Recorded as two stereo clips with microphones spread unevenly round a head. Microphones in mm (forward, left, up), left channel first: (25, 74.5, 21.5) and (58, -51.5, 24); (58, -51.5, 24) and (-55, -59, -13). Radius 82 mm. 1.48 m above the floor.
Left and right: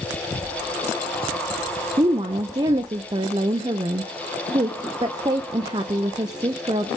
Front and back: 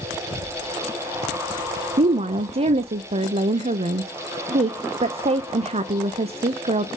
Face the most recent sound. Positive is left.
turn(degrees=-140)